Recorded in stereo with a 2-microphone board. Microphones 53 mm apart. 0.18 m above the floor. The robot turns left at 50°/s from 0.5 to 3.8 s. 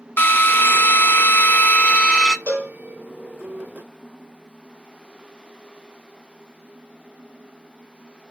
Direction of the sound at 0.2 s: 110° left.